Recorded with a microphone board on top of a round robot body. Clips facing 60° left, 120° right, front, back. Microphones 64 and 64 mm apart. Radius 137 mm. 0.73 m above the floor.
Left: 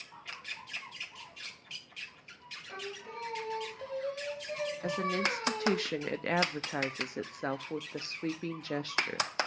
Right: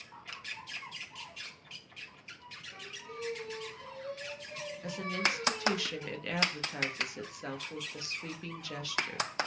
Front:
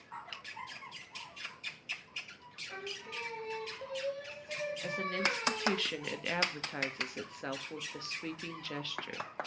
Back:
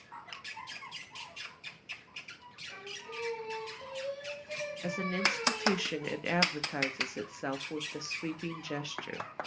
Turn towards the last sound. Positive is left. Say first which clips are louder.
# left 1 dB, back 3 dB
turn(degrees=105)